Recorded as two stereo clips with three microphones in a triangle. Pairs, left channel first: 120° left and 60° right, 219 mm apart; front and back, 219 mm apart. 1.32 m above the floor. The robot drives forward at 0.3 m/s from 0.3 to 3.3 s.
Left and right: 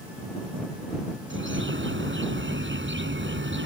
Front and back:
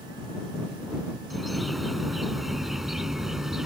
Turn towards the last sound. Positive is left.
turn(degrees=-90)